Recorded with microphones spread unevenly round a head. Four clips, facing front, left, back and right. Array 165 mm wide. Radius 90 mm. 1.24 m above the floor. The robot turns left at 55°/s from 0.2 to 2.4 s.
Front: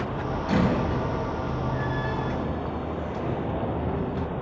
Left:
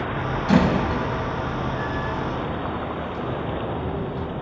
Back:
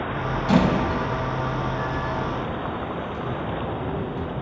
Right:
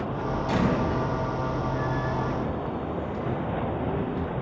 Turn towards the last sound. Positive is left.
turn(degrees=30)